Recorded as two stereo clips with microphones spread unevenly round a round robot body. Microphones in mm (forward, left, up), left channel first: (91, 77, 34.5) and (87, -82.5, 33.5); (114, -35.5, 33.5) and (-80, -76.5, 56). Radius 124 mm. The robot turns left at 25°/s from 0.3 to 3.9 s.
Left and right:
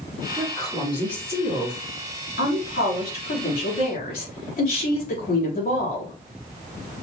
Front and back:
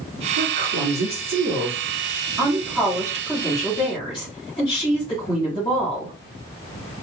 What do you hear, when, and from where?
0.4 s a woman speaking: 165° left, 3 m; by 6.2 s 80° left, 3 m